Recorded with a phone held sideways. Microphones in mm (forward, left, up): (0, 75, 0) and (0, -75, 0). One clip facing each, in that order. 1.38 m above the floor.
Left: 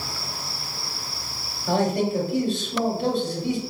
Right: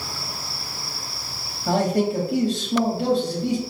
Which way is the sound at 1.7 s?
85° right.